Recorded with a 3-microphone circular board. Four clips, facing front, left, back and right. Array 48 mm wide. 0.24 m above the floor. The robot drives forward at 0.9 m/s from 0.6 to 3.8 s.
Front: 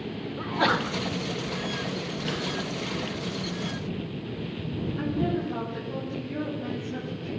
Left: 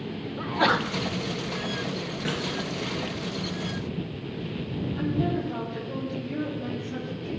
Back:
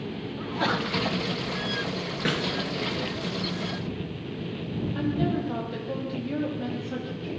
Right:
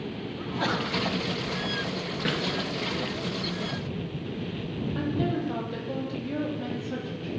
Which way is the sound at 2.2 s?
160° right.